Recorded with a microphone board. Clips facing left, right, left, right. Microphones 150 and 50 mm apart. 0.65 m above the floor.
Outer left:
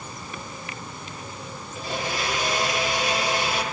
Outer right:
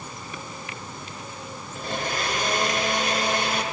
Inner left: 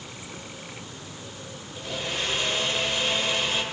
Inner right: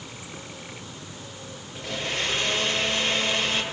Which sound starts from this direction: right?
A blender, at 1.8 s.